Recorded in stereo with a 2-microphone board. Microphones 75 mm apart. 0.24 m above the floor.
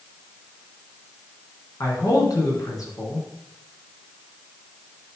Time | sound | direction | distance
1.8 | a man speaking | 55° left (ahead or behind) | 3 m